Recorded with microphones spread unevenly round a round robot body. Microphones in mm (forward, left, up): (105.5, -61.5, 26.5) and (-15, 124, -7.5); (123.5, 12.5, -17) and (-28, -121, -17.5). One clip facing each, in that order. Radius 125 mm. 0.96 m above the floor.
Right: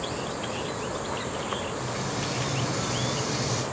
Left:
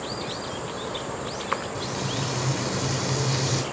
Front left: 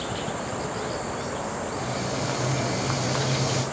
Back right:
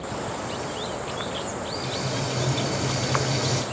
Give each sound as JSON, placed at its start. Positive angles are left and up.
{"t": 1.8, "sound": "frying", "azimuth_deg": 150, "distance_m": 1.8}